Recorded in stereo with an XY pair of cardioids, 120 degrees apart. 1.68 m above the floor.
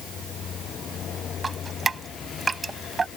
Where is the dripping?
25° right.